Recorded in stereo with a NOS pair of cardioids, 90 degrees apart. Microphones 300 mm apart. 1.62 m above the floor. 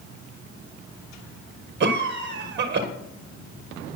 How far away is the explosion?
No explosion in this recording.